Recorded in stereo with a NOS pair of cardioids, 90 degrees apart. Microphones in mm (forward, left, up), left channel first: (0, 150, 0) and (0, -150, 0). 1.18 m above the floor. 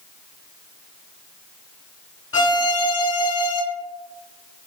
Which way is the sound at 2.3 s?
45° left.